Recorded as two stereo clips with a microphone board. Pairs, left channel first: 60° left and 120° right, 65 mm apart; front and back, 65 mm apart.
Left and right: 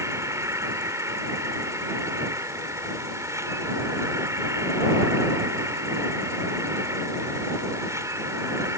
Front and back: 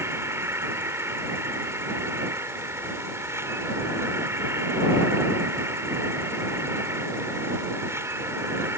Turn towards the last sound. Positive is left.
turn(degrees=-145)